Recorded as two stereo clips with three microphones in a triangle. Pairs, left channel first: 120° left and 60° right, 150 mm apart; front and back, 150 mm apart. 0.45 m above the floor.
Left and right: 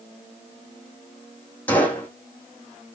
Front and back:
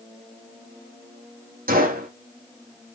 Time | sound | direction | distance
1.7 | a gunshot | 160° right | 7 m